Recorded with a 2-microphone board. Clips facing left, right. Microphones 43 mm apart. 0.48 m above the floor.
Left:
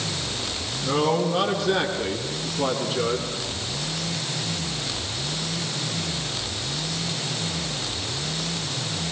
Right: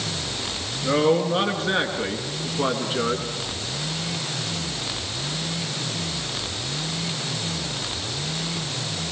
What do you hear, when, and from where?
0.8 s a man speaking: 35° right (ahead or behind), 6 m; by 3.2 s 25° right (ahead or behind), 4.5 m